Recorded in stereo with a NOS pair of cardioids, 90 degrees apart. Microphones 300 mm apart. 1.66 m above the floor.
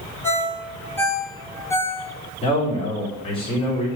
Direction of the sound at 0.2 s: 10° left.